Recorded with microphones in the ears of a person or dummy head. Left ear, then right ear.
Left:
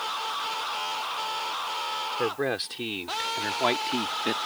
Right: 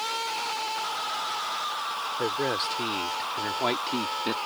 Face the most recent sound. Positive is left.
turn(degrees=15)  # may be behind; listen again after turning